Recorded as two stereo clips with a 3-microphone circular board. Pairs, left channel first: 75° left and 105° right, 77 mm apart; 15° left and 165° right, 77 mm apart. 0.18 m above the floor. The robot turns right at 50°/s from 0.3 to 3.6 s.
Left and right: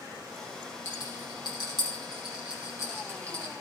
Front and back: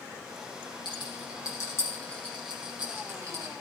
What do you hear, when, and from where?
0.8 s a rattle: 20° left, 4.5 m; by 3.5 s 155° left, 4.5 m